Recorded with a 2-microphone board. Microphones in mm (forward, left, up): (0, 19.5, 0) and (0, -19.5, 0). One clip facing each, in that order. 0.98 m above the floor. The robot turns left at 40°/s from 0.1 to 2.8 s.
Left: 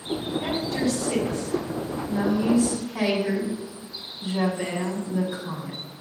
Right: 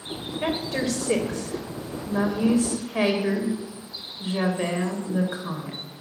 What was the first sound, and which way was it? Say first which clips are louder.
A woman speaking: right 3 dB; 45° right.